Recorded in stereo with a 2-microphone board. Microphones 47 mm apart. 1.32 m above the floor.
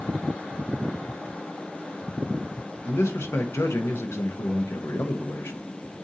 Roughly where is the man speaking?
Left.